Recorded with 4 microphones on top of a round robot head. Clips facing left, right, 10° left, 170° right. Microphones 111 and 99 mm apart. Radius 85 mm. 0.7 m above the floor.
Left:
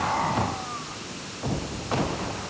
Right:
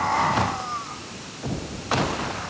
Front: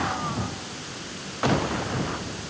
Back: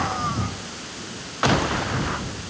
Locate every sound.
Only background noise.